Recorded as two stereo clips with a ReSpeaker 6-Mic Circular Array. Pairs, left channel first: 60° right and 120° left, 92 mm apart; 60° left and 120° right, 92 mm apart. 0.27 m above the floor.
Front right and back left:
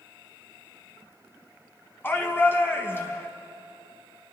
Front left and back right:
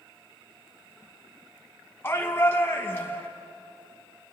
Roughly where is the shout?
Ahead.